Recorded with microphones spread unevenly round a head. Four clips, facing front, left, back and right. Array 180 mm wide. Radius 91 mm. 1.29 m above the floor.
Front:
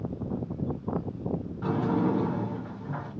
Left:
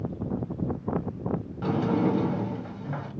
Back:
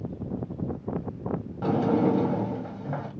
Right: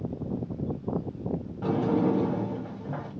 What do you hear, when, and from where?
1.6 s a sliding door: 170° right, 1.7 m